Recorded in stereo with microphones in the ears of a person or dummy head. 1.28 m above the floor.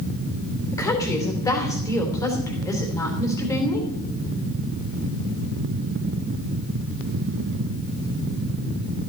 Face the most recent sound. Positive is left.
turn(degrees=10)  # may be behind; listen again after turning